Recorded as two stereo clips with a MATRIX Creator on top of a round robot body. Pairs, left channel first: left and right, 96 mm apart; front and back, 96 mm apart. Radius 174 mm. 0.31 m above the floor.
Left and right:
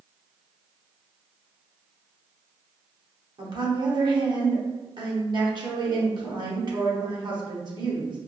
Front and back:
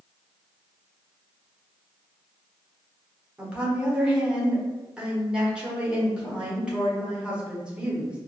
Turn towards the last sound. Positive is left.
turn(degrees=-100)